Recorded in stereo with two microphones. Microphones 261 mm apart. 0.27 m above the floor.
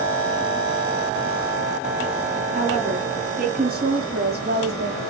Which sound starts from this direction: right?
A woman speaking, at 2.5 s.